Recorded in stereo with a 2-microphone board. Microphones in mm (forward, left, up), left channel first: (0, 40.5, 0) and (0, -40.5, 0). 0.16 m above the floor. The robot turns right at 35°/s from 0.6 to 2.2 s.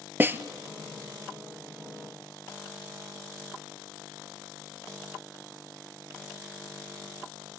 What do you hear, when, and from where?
0.2 s a snare drum: 25° right (ahead or behind), 0.7 m